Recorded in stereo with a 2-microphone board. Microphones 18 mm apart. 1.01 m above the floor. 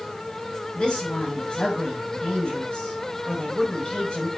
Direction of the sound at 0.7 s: 75° left (ahead or behind).